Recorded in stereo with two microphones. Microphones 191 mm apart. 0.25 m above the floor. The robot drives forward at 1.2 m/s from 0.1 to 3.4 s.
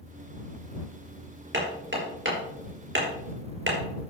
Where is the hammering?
65° right (ahead or behind), 4 m; by 4.1 s 70° right (ahead or behind), 3.5 m.